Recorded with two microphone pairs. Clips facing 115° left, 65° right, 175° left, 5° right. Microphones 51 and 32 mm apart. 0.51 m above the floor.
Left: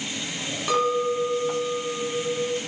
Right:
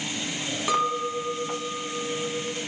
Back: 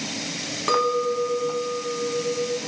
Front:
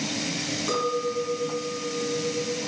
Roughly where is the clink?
Behind right.